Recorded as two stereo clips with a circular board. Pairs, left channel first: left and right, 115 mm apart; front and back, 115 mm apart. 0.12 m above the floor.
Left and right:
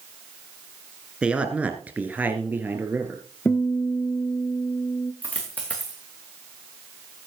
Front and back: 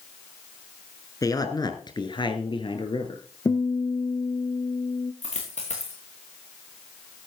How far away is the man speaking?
About 1.5 m.